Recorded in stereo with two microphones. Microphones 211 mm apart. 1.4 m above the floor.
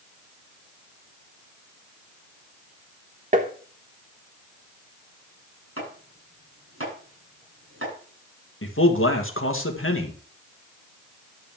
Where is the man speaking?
75° left (ahead or behind), 1.9 m.